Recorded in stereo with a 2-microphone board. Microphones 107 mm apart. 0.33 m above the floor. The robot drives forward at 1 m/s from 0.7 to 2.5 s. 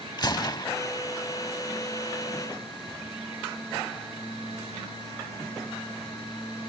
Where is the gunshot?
40° left (ahead or behind).